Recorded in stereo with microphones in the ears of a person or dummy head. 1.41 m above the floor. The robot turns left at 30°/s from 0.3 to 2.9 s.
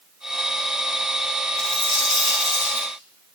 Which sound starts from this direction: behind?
A dropped coin, at 1.6 s.